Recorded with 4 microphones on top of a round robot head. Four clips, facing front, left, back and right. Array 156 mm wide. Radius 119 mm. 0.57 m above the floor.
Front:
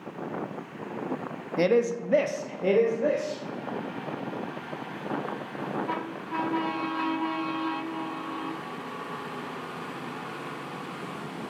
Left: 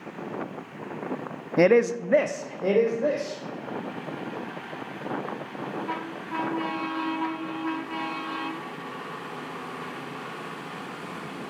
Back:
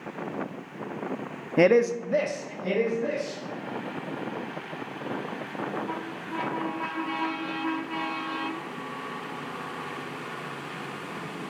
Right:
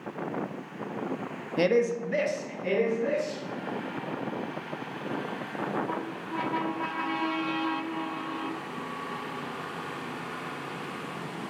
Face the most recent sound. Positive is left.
turn(degrees=50)